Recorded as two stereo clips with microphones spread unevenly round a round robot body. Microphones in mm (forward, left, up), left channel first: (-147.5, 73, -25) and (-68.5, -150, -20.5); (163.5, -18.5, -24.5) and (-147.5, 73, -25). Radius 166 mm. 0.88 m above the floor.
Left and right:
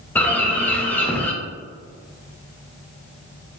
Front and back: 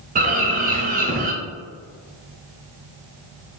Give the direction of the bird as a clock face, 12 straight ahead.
6 o'clock.